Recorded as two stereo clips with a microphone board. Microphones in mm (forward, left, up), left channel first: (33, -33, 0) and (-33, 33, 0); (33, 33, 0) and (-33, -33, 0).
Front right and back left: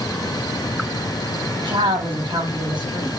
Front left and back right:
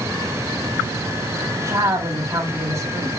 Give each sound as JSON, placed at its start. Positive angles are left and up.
{"t": 1.6, "sound": "a woman speaking", "azimuth_deg": 170, "distance_m": 7.0}